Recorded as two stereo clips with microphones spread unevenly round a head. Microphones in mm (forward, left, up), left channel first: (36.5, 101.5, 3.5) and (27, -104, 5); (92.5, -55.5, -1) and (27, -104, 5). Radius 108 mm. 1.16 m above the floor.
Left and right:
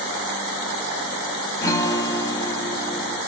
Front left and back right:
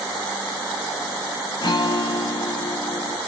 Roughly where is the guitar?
Ahead.